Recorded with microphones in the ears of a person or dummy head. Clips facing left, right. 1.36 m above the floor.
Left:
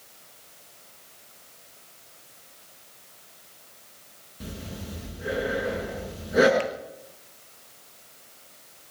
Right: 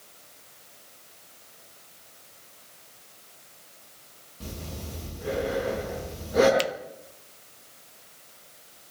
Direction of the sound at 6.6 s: 55° right (ahead or behind).